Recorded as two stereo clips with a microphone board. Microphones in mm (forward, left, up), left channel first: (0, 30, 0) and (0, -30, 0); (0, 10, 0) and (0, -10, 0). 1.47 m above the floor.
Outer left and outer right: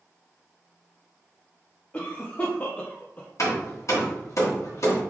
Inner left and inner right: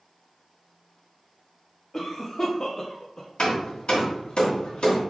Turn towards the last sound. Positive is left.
turn(degrees=60)  # may be behind; listen again after turning